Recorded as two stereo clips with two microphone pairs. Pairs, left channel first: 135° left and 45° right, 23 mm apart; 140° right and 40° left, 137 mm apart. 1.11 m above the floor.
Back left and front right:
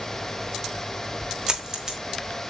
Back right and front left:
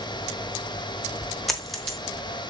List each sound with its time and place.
1.5 s a dropped coin: 55° right, 0.9 m